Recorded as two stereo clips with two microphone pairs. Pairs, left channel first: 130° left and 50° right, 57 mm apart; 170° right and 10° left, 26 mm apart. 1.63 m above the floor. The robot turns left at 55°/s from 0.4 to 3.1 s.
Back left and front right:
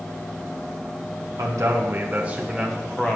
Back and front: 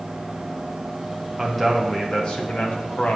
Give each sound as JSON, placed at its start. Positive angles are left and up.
{"t": 1.4, "sound": "a man speaking", "azimuth_deg": -70, "distance_m": 1.0}